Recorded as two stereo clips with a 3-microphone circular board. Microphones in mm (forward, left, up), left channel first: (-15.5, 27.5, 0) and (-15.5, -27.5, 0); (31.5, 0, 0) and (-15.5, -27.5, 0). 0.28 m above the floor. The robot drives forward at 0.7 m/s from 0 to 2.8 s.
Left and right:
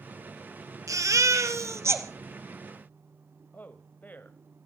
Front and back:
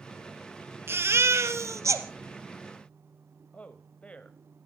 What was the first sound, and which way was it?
A baby crying, 105° right.